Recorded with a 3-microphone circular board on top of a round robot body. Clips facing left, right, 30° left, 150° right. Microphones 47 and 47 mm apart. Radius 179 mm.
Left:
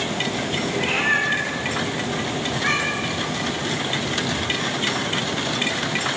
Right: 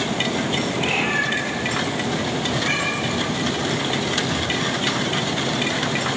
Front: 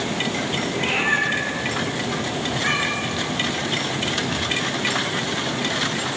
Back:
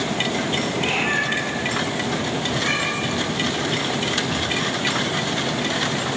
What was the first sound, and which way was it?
A cat meowing, 90° left.